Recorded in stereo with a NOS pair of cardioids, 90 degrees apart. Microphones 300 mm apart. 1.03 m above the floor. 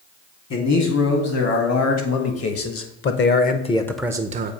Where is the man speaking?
65° left, 2.5 m; by 4.5 s 60° right, 0.6 m.